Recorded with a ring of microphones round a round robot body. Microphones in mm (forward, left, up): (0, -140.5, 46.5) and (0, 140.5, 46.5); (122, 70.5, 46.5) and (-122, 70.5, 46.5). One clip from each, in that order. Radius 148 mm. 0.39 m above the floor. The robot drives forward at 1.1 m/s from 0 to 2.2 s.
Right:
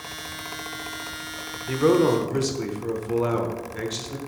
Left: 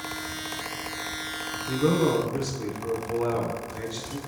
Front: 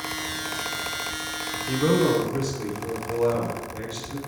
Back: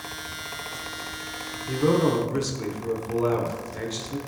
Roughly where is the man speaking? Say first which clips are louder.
Right 5 dB, even; right.